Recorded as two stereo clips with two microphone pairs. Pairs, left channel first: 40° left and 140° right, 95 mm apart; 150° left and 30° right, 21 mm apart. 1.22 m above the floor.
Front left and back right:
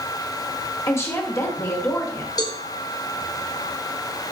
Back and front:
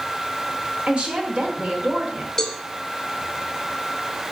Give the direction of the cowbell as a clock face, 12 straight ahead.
9 o'clock.